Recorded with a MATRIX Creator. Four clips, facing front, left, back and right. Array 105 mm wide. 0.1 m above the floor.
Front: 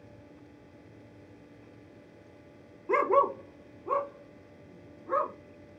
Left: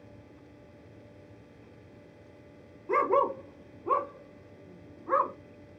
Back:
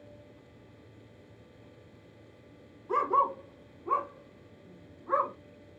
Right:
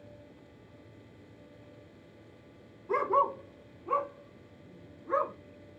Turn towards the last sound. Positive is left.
turn(degrees=100)